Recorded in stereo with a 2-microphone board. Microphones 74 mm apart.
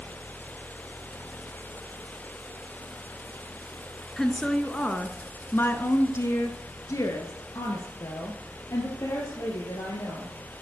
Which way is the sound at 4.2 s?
5° left (ahead or behind).